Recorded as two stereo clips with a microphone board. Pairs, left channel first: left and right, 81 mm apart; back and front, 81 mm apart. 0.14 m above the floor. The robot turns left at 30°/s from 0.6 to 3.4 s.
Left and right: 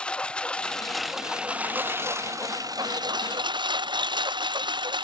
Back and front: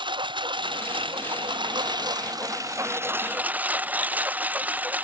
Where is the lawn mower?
15° left; by 5.0 s 70° right.